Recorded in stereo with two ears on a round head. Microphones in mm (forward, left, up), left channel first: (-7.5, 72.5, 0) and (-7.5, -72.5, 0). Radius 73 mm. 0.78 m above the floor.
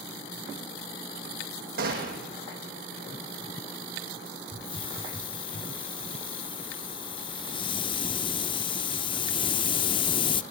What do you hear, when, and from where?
1.8 s a gunshot: 60° right (ahead or behind), 5 m
4.5 s a hiss: 30° left (ahead or behind), 0.7 m